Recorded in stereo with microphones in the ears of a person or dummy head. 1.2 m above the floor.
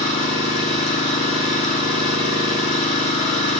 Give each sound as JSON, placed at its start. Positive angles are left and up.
{"t": 0.0, "sound": "an engine running", "side_deg": 40, "distance_m": 6.5}